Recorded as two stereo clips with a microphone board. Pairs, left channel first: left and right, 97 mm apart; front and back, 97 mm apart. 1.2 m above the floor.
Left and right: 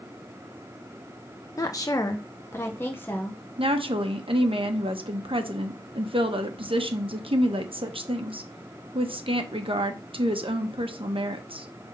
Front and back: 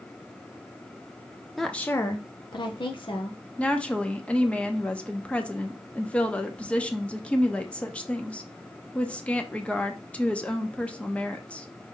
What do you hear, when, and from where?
1.6 s a woman speaking: 90° left, 0.5 m; by 3.4 s 20° left, 1.3 m
3.6 s a woman speaking: 75° right, 1.0 m